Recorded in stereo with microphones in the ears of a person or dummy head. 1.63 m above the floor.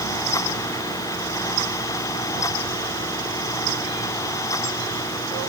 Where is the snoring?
I don't hear snoring.